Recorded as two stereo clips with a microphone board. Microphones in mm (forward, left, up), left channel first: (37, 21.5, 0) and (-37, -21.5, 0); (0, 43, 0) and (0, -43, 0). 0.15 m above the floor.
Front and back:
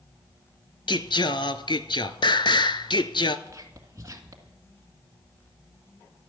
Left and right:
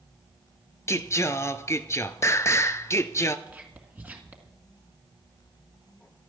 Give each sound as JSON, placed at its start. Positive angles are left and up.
{"t": 0.9, "sound": "singing", "azimuth_deg": 40, "distance_m": 0.6}
{"t": 3.5, "sound": "whispering", "azimuth_deg": -140, "distance_m": 1.7}